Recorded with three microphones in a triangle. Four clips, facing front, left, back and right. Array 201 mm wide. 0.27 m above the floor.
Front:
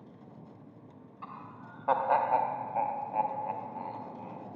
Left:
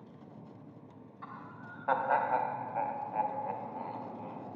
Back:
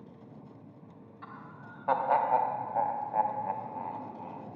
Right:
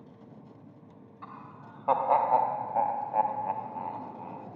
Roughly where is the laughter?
Ahead.